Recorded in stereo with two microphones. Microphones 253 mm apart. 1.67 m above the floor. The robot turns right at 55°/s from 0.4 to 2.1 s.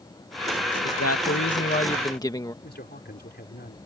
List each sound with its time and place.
0.8 s a man speaking: 95° left; by 2.5 s 165° left
2.6 s a man speaking: 40° left (ahead or behind)